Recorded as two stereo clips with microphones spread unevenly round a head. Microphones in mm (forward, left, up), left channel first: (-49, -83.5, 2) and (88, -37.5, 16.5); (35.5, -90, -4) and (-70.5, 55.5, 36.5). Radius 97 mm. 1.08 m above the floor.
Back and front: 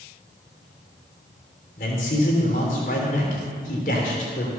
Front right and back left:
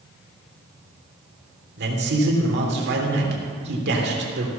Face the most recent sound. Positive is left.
turn(degrees=150)